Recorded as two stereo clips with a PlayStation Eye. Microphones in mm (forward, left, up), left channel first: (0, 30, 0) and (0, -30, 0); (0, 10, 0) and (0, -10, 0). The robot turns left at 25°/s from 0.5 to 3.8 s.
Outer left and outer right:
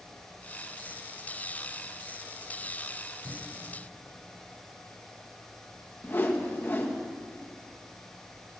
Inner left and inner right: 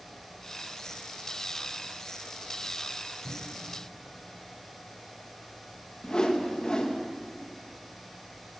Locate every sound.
3.2 s a cupboard door: 70° right (ahead or behind), 9 m; by 3.7 s 55° right (ahead or behind), 9 m
6.0 s a whoosh: 40° left (ahead or behind), 1.7 m